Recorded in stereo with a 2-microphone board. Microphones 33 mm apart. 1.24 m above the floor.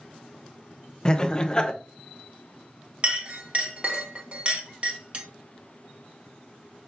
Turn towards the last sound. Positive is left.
turn(degrees=-40)  # may be behind; listen again after turning